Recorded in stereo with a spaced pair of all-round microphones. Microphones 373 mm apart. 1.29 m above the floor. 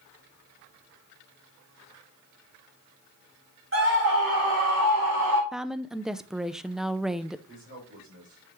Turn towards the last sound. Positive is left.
turn(degrees=-45)  # may be behind; listen again after turning